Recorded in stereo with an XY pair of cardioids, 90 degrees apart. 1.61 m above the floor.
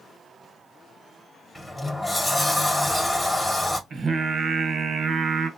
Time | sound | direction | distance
1.6 | a sliding door | 15° left | 1.4 m
3.9 | singing | 55° right | 1.5 m